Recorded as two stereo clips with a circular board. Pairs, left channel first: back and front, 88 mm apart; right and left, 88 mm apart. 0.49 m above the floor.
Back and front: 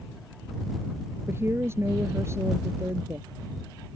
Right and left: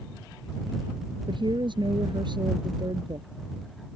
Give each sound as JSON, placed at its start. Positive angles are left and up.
{"t": 1.3, "sound": "a woman speaking", "azimuth_deg": 60}